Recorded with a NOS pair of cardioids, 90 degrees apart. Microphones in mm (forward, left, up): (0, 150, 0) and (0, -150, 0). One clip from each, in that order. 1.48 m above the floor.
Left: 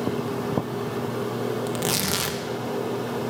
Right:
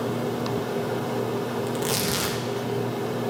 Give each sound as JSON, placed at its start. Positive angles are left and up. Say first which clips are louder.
{"t": 1.7, "sound": "tearing paper", "louder": "even", "azimuth_deg": 30, "distance_m": 2.0}